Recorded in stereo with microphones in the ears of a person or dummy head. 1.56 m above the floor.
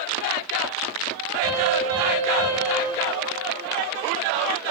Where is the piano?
85° right, 6 m.